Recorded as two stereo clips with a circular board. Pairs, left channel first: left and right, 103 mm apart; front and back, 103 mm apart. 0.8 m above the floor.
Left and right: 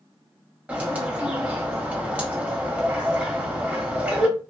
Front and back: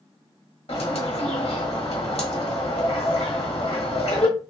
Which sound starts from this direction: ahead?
A bird, at 0.7 s.